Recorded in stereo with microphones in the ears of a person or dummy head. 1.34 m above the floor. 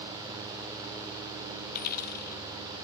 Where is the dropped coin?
50° left (ahead or behind).